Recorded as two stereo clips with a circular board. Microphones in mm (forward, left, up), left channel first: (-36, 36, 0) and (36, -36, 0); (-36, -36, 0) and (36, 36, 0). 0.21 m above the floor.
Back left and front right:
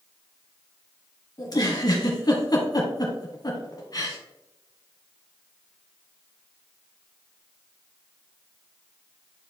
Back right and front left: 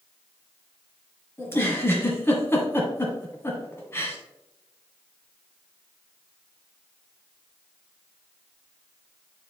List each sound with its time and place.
1.4 s a giggle: 165° left, 1.7 m